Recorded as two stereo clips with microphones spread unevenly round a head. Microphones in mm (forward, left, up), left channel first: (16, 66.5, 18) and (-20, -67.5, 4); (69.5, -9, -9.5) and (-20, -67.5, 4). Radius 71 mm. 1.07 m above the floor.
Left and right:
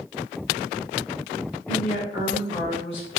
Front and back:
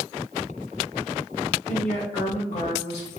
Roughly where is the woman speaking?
Ahead left.